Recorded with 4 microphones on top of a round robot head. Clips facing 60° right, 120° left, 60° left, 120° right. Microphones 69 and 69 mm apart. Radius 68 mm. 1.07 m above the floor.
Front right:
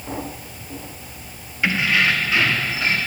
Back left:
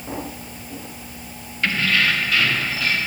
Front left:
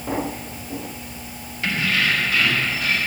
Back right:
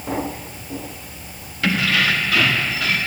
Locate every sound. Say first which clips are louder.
1.6 s keys jangling: front right 1 dB, back right 3 dB; 135° right, 1.3 m; by 3.0 s 125° right, 1.9 m